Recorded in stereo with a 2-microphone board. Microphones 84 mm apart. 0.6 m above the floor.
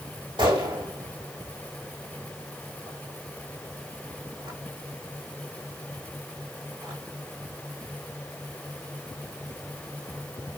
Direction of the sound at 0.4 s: 85° right.